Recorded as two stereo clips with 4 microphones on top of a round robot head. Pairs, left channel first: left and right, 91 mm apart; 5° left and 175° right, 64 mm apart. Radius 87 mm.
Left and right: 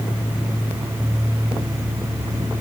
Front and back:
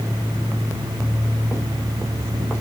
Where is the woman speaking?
No woman speaking in this recording.